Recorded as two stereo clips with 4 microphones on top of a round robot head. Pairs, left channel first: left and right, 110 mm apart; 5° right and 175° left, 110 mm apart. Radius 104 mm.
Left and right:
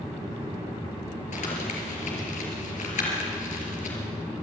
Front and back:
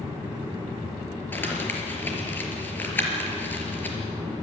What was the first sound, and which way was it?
Crumpling, 70° left.